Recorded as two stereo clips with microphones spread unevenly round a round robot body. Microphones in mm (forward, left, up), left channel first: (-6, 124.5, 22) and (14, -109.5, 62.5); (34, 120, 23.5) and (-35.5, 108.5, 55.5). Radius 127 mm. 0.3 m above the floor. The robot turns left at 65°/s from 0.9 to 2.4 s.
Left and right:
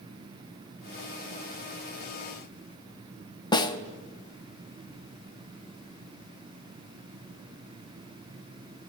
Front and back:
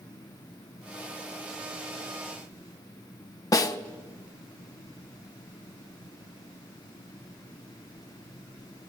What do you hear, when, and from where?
3.5 s a snare drum: 25° left, 1.0 m